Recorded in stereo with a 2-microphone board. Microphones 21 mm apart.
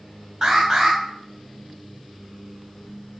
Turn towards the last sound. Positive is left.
turn(degrees=-30)  # may be behind; listen again after turning